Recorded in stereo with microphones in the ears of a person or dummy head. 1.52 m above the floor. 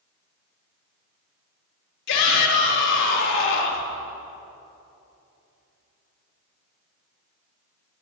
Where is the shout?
60° left (ahead or behind), 3.5 m.